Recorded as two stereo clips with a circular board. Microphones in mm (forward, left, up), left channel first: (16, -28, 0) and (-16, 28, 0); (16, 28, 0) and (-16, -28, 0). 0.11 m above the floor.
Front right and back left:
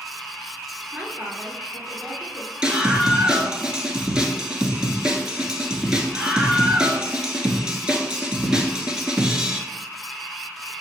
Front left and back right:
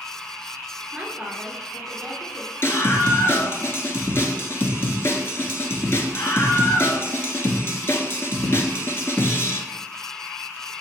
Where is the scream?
50° left, 1.4 m.